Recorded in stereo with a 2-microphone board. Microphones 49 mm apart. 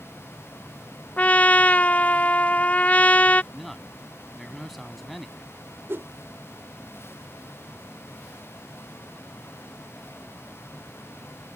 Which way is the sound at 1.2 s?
30° left (ahead or behind).